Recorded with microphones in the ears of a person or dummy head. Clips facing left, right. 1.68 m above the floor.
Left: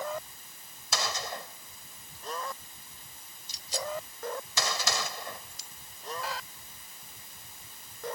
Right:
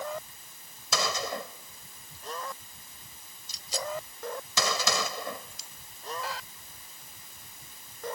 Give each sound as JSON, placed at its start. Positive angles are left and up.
{"t": 0.9, "sound": "a gunshot", "side_deg": -75}